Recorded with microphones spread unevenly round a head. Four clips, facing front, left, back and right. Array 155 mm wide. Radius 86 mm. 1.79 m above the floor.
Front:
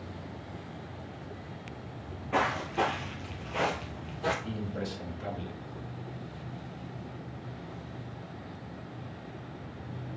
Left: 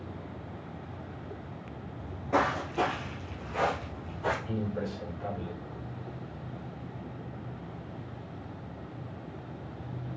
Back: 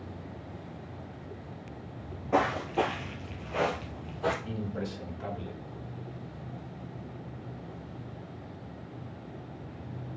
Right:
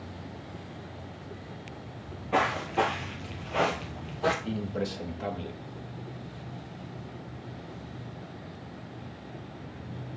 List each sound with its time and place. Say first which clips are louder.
2.0 s footsteps: even, back 2 dB; 155° left, 2.0 m; by 4.3 s 95° right, 2.5 m
4.5 s a man speaking: right 1 dB, even; 70° right, 2.5 m